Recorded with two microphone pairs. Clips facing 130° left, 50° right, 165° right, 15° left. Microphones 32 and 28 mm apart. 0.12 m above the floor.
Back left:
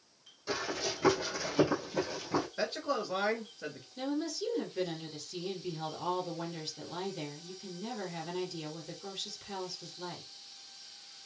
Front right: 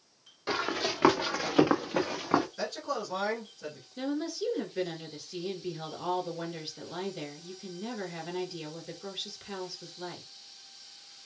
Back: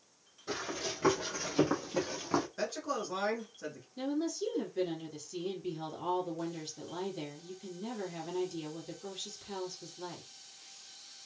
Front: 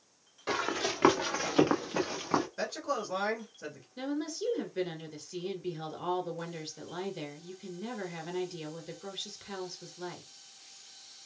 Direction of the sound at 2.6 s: 100° left.